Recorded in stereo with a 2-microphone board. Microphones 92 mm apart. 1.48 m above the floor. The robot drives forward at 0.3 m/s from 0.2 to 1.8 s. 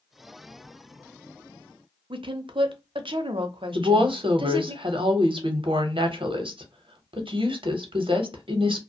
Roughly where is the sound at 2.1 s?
Right.